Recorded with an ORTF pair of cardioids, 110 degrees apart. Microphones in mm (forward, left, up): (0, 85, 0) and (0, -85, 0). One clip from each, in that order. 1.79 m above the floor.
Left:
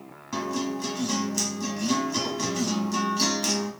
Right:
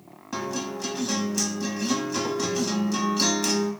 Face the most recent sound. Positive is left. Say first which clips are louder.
# left 1 dB
turn(degrees=-5)